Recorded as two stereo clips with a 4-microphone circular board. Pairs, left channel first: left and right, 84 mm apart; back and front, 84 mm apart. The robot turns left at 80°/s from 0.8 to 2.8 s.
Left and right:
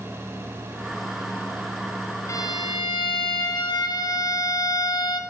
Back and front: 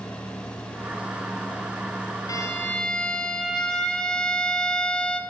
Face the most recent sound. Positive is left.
turn(degrees=100)